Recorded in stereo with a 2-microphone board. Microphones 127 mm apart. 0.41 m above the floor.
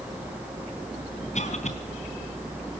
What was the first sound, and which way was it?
A cough, 60° left (ahead or behind).